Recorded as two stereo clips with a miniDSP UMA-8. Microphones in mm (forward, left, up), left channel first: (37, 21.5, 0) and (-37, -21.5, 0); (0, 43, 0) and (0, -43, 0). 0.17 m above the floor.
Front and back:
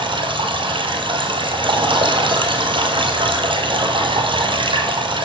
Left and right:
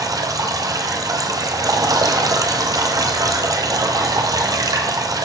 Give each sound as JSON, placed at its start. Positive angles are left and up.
{"t": 0.0, "sound": "running water", "azimuth_deg": -135, "distance_m": 1.1}